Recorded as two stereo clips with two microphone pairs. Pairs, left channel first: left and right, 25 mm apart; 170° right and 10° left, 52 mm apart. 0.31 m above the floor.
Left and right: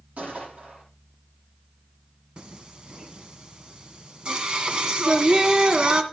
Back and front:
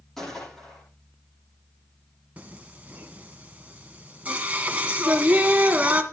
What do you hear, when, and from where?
0.2 s a gunshot: 85° right, 9.5 m
2.4 s singing: 50° right, 1.8 m